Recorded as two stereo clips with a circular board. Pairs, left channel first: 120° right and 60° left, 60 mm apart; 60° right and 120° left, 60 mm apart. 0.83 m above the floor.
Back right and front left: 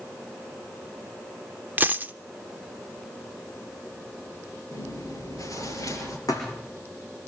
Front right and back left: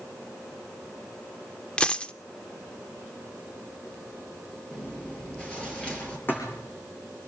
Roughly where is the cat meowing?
I don't hear a cat meowing.